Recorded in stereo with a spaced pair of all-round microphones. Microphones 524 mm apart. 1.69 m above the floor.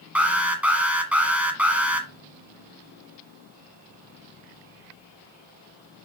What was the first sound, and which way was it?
An alarm, centre (ahead or behind).